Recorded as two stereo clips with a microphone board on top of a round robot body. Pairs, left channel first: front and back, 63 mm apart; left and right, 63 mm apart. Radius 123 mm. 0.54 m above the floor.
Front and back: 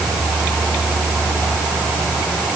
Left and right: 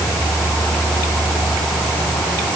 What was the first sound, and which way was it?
Only background noise.